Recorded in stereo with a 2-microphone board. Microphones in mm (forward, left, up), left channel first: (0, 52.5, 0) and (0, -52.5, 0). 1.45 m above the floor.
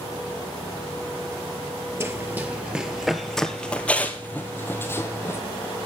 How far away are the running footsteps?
About 1.5 m.